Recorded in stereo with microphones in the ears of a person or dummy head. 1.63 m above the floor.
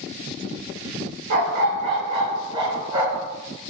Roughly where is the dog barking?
Right.